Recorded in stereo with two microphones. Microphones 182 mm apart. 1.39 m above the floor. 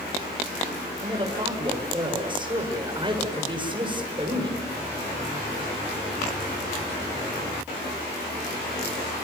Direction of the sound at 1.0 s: 25° right (ahead or behind).